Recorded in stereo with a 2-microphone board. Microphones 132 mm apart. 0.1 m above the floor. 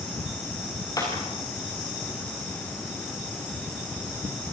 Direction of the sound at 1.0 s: 25° left (ahead or behind).